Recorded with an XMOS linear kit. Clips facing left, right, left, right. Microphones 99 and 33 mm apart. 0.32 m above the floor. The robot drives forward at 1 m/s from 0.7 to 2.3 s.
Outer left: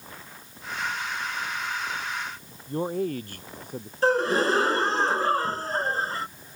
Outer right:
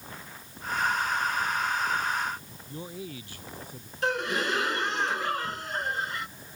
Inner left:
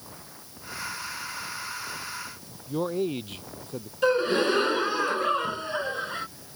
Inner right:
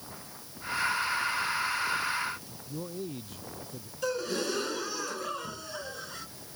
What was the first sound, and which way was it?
A man speaking, 60° left (ahead or behind).